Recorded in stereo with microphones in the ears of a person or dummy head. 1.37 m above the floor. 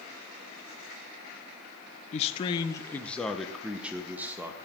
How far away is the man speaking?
About 0.7 m.